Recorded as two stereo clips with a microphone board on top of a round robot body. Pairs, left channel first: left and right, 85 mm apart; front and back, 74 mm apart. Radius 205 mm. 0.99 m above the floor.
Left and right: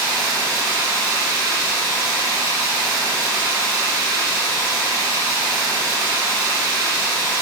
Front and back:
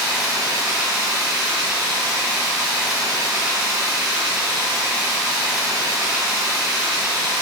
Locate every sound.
0.0 s running water: 140° right, 2.5 m